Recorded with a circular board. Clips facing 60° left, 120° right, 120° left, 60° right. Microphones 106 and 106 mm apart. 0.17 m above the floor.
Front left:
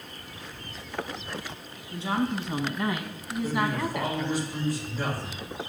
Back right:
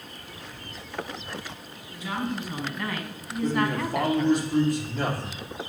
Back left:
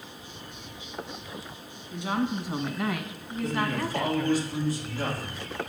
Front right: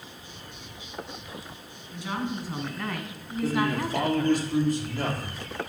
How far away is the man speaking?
About 5 m.